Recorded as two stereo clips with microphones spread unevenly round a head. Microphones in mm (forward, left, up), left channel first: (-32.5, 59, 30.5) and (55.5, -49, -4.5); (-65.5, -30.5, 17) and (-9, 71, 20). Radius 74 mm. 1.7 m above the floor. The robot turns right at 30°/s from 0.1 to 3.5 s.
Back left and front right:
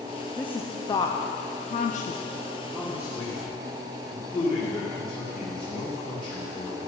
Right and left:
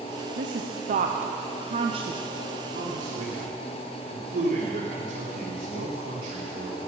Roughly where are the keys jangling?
No keys jangling in this recording.